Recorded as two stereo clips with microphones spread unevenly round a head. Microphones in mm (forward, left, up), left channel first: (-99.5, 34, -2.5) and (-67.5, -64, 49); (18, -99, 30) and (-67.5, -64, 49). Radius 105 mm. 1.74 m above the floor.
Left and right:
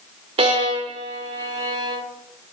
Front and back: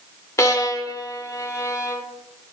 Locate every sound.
0.4 s a violin: 85° right, 0.7 m